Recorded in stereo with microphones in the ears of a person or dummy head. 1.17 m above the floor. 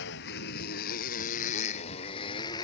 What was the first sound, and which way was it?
A motorcycle, 60° left (ahead or behind).